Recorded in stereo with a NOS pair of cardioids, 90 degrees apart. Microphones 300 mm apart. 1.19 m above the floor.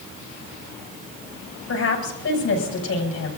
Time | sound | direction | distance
1.7 | a woman speaking | 50° left | 6.5 m